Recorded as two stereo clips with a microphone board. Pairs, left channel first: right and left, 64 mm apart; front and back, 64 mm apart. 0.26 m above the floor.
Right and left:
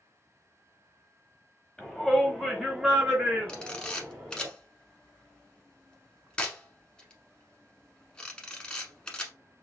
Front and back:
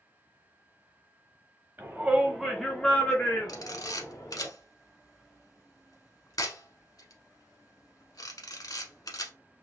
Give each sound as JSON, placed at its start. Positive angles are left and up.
{"t": 1.8, "sound": "a shout", "azimuth_deg": -160, "distance_m": 1.2}
{"t": 3.5, "sound": "a camera shutter", "azimuth_deg": -15, "distance_m": 0.9}